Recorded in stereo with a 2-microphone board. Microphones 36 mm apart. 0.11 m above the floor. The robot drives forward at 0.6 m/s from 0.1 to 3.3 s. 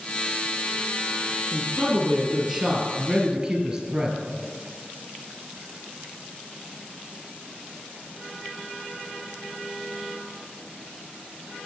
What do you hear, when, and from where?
1.5 s a man speaking: 10° right (ahead or behind), 2.5 m; by 4.2 s 15° right (ahead or behind), 1.5 m